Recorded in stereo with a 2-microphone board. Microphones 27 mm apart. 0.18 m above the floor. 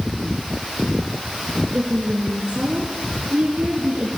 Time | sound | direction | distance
1.7 | a woman speaking | 60° right (ahead or behind) | 3 m